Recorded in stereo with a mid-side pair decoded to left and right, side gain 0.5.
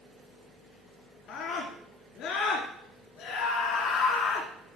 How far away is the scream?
About 2.5 m.